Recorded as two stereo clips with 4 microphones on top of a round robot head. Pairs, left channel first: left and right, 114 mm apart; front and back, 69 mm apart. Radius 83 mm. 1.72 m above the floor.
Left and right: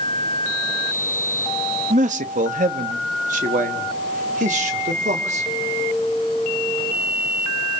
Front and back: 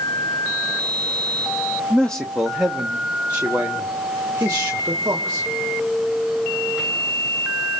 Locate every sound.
1.9 s a man speaking: 75° right, 1.3 m; by 5.5 s 120° right, 3 m